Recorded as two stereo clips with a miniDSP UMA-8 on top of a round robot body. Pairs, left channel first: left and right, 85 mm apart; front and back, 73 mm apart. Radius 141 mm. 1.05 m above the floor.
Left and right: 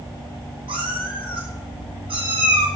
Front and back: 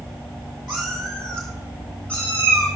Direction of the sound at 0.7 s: 90° right.